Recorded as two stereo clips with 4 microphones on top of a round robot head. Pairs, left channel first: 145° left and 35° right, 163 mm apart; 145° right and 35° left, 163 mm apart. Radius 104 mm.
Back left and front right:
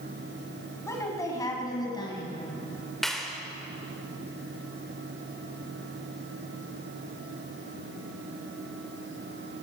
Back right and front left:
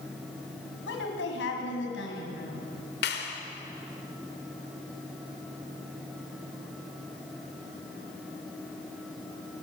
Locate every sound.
0.9 s a woman speaking: 145° right, 6.5 m; by 2.6 s 155° right, 6 m
3.0 s a clap: 130° right, 3 m